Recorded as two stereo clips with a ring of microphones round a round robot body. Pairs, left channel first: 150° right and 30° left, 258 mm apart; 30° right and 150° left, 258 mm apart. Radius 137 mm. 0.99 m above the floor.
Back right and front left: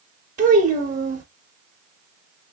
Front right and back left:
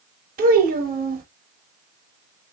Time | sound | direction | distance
0.4 | a child speaking | 90° left | 1.1 m